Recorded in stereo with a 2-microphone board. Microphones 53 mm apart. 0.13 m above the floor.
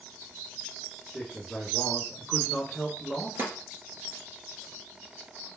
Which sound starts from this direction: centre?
A man speaking, at 1.1 s.